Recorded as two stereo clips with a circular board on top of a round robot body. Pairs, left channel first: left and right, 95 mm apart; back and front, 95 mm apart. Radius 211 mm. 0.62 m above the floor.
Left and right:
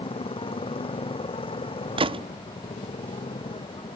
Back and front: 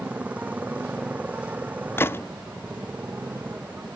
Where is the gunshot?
115° right.